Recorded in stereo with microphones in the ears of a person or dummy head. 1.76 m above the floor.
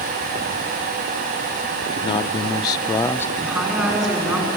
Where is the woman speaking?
5° right (ahead or behind), 6.5 m.